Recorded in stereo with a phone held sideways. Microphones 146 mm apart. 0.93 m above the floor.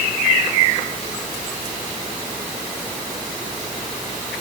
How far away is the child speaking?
No child speaking in this recording.